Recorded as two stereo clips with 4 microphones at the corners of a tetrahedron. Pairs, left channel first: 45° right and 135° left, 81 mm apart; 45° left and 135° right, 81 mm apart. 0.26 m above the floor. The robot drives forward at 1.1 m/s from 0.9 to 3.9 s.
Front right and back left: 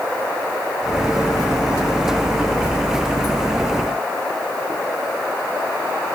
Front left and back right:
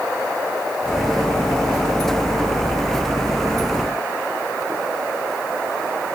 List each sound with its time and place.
Only background noise.